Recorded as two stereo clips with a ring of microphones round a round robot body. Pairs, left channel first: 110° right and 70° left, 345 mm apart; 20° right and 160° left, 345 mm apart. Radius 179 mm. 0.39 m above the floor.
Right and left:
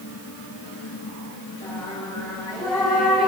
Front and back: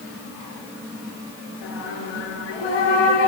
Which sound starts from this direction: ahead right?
Singing, at 1.6 s.